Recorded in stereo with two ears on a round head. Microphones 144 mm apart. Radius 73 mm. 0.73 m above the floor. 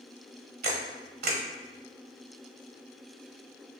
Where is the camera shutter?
65° right (ahead or behind), 1.0 m.